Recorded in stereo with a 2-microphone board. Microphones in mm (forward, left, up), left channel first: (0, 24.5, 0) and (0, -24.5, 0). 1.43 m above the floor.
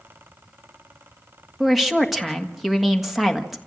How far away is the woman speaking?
About 1.6 m.